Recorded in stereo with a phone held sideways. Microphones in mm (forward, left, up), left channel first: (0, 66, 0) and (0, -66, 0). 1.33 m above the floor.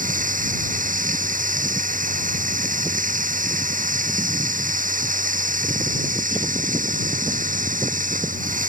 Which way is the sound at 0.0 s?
85° right.